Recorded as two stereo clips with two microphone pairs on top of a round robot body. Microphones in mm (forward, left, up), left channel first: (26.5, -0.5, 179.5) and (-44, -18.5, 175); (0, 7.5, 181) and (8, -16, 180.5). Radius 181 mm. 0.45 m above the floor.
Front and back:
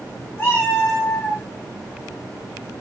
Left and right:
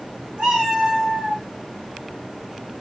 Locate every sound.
0.4 s a cat meowing: 40° right, 2.5 m; by 1.4 s 25° right, 3 m